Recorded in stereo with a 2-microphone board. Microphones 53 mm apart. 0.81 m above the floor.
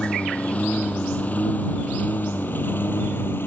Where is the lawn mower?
25° left (ahead or behind); by 3.5 s 50° left (ahead or behind).